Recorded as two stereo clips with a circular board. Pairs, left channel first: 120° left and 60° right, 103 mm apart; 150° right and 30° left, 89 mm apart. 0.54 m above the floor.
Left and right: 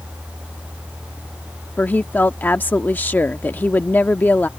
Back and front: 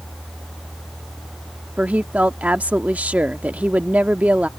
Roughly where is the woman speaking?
Left.